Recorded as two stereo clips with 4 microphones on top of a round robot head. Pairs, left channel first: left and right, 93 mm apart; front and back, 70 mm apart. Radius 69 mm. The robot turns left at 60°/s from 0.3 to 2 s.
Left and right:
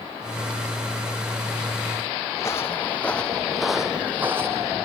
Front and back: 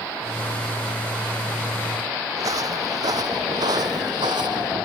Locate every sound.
2.4 s footsteps: 160° left; by 4.8 s 155° right